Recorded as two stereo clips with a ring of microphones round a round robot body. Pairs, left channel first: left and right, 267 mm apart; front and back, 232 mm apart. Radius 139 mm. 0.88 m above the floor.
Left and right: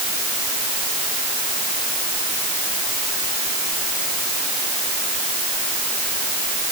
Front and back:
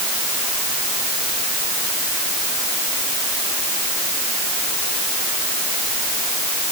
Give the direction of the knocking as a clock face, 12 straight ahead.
I don't hear knocking.